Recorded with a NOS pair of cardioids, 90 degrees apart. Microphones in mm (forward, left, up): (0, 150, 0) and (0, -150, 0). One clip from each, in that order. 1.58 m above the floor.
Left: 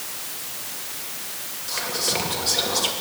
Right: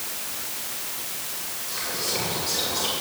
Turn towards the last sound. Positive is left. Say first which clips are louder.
# left 4 dB
turn(degrees=55)